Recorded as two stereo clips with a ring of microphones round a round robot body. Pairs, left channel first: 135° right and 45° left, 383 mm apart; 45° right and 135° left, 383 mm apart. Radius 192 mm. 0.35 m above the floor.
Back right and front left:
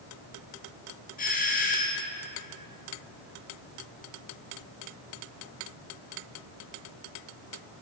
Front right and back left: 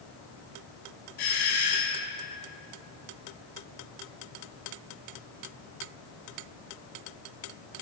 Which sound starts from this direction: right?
A doorbell, at 1.2 s.